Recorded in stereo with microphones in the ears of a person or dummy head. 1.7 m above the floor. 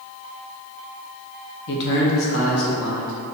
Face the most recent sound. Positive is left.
turn(degrees=85)